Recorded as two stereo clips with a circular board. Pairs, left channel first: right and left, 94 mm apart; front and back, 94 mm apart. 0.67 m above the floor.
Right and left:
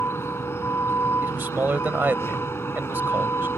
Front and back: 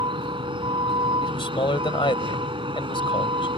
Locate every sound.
0.0 s a vehicle: 155° right
1.2 s a man speaking: 20° left